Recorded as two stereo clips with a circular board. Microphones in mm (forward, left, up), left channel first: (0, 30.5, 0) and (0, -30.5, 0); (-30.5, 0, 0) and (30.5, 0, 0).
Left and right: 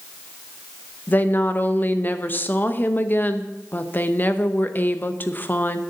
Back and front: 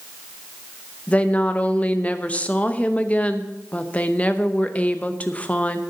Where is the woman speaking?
125° left, 0.8 m.